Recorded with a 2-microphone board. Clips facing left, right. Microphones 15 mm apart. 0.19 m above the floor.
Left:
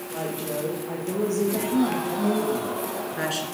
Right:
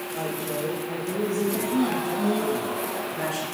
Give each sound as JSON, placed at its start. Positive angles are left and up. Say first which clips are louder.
{"t": 0.1, "sound": "a woman speaking", "louder": "left 1 dB", "side_deg": 55, "distance_m": 6.5}